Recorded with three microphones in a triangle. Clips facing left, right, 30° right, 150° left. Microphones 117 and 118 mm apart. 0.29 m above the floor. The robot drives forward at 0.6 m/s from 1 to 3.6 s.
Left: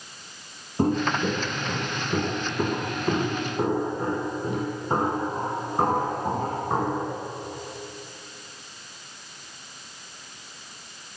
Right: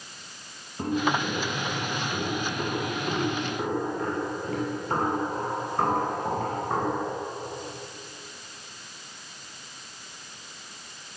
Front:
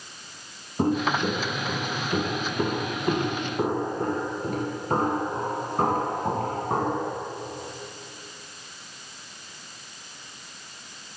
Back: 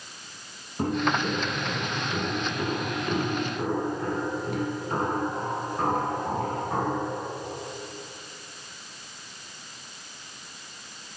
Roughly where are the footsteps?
Ahead left.